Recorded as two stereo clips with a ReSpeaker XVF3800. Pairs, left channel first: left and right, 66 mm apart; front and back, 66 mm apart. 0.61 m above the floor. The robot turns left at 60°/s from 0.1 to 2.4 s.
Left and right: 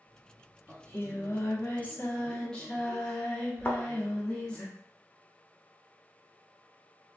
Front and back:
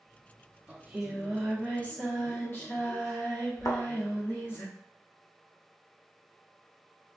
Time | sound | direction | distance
0.7 | singing | 120° left | 0.8 m
3.6 | a thud | 25° left | 0.6 m